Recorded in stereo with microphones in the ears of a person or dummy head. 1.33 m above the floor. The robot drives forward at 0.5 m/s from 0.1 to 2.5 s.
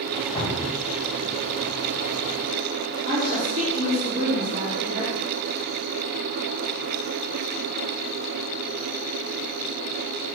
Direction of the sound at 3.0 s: 55° right (ahead or behind).